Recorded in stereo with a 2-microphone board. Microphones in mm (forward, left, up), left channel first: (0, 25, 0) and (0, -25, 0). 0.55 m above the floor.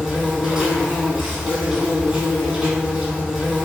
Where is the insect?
25° right (ahead or behind), 1.1 m.